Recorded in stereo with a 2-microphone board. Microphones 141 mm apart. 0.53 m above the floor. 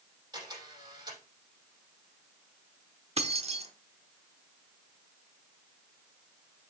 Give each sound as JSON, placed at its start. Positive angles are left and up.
{"t": 0.3, "sound": "a camera shutter", "side_deg": -30, "distance_m": 5.0}
{"t": 3.2, "sound": "keys jangling", "side_deg": -50, "distance_m": 0.9}